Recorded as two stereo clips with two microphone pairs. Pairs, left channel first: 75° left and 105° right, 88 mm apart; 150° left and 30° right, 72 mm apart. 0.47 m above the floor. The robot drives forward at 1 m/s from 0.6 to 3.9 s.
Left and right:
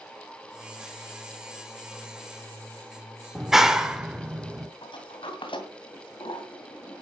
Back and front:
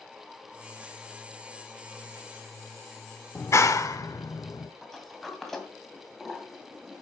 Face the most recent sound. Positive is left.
turn(degrees=65)